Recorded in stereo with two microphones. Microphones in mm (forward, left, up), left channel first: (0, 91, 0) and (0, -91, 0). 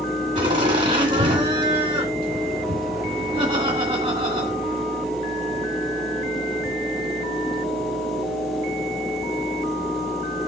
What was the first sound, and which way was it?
Laughter, 45° right (ahead or behind).